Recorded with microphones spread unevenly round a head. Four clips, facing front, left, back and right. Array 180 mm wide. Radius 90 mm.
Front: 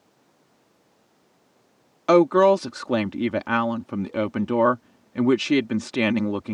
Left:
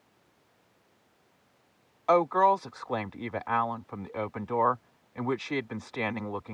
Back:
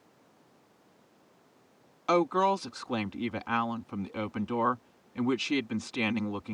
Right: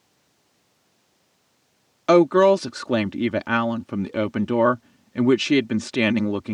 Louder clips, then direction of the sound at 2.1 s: Right 8 dB, front 10 dB; 55° right.